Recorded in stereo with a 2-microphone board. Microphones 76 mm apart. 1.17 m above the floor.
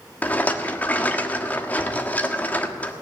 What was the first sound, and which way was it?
A rattle, 25° left (ahead or behind).